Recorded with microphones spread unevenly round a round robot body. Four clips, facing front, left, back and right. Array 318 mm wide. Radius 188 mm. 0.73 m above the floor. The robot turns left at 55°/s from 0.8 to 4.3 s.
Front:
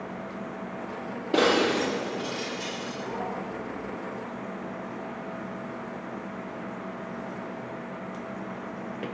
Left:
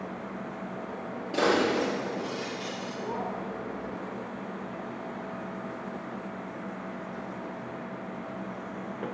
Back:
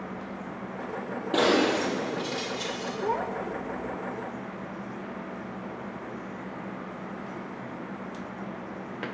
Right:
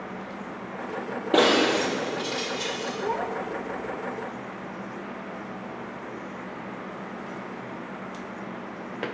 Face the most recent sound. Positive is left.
turn(degrees=145)